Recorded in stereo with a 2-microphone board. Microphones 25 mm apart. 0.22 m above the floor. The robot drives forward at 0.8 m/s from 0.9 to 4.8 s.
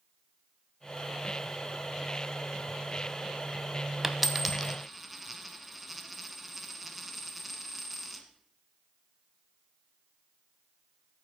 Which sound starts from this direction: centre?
A dropped coin, at 4.0 s.